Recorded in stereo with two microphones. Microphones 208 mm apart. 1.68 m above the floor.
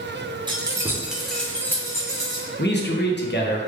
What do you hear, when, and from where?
0.5 s keys jangling: 20° right (ahead or behind), 0.6 m; by 2.5 s 20° left (ahead or behind), 1.1 m
2.6 s a man speaking: 55° left (ahead or behind), 0.6 m